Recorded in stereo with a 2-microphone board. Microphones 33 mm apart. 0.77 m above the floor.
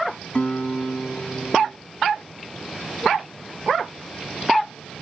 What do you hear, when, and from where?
0.3 s a guitar: 40° left (ahead or behind), 1.3 m